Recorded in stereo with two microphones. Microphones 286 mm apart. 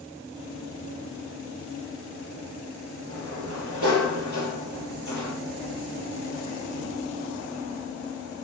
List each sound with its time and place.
3.1 s a sliding door: 75° right (ahead or behind), 7 m